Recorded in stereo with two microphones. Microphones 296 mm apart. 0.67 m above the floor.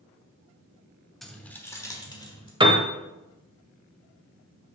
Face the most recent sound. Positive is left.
turn(degrees=-15)  # may be behind; listen again after turning